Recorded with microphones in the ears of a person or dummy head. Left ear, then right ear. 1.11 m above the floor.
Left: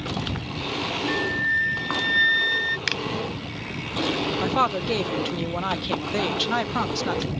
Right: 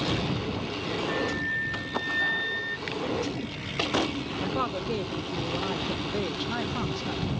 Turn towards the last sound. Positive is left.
turn(degrees=35)  # may be behind; listen again after turning